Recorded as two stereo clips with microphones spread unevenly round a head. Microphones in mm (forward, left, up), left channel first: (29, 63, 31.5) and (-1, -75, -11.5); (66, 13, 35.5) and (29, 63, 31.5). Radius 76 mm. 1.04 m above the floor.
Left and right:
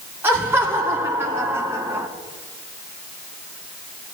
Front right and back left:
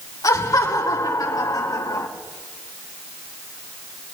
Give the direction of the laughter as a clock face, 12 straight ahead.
1 o'clock.